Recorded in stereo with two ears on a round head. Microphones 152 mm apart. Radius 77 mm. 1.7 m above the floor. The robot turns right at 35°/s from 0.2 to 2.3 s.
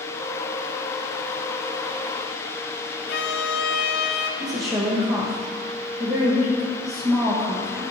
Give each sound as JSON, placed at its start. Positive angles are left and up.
{"t": 3.1, "sound": "a violin", "side_deg": 65, "distance_m": 0.5}
{"t": 4.4, "sound": "a woman speaking", "side_deg": -20, "distance_m": 1.0}